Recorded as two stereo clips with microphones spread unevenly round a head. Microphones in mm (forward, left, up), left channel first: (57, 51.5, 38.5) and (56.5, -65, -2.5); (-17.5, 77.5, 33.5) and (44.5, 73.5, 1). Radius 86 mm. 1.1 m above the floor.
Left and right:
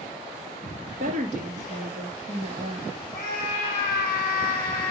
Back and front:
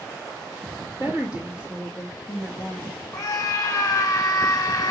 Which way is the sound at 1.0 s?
115° right.